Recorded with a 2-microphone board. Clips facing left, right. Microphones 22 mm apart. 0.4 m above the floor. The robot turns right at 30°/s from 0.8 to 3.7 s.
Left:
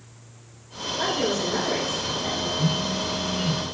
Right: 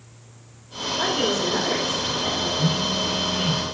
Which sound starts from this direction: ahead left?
A phone buzzing, at 2.6 s.